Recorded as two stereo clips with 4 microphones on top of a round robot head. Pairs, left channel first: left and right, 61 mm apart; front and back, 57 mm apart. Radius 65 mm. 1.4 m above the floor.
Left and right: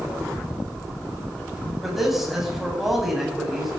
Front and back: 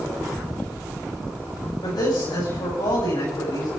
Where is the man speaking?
5° right, 8.5 m.